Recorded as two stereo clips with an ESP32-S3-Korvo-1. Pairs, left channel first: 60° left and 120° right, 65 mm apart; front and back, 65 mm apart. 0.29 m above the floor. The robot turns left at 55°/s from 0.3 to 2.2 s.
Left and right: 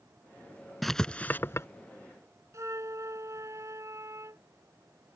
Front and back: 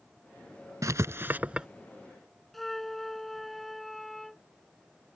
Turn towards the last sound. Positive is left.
turn(degrees=-85)